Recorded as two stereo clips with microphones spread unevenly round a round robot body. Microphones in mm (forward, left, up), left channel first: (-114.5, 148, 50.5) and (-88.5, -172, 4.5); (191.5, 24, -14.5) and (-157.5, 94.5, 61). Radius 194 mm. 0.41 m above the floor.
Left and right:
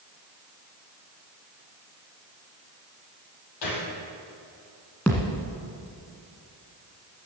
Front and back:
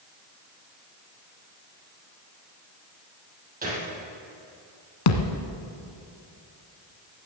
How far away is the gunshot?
About 4 m.